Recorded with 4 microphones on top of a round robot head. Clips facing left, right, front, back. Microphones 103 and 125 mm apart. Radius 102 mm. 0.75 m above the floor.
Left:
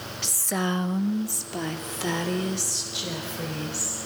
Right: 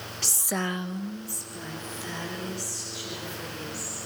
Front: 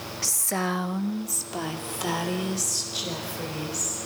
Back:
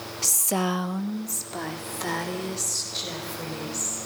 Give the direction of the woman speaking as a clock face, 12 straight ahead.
4 o'clock.